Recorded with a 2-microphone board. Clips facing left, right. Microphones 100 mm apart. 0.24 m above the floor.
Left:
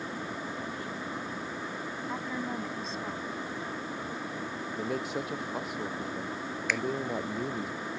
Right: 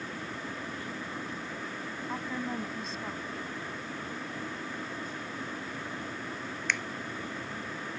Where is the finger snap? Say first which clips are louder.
Left 2 dB; centre (ahead or behind).